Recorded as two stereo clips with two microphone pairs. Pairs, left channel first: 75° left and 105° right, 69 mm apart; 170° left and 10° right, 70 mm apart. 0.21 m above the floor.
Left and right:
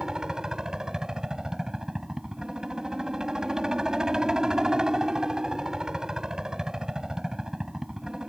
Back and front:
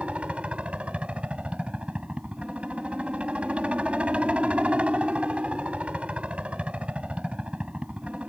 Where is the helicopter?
45° right.